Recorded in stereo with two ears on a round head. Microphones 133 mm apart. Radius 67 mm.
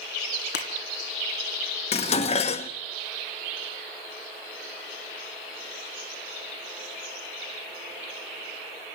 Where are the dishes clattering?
45° left (ahead or behind), 1.2 m.